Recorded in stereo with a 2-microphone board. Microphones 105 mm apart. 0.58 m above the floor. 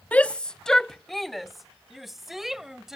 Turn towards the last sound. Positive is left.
turn(degrees=-5)  # may be behind; listen again after turning